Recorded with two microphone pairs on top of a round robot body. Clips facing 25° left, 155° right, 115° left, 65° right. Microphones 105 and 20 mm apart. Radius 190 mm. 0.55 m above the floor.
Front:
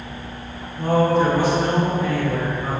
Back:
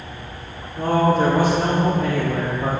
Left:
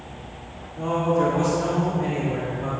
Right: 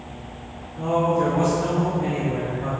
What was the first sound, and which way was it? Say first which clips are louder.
A man speaking: even, right 1 dB; 165° left.